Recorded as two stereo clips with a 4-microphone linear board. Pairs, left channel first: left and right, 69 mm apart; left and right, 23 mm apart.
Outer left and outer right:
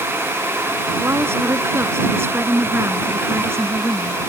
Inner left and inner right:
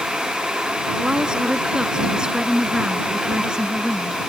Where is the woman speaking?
35° right (ahead or behind).